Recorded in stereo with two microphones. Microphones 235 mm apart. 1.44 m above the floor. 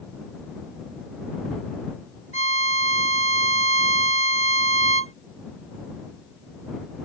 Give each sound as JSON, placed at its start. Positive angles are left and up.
{"t": 2.3, "sound": "a violin", "side_deg": -65}